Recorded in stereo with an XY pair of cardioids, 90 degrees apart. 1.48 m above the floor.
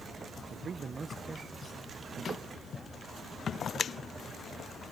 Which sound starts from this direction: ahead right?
A man speaking, at 0.5 s.